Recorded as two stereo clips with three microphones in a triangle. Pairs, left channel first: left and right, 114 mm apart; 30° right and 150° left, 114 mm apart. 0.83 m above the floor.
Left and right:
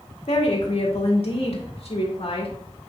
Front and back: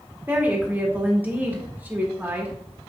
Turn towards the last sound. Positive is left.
turn(degrees=80)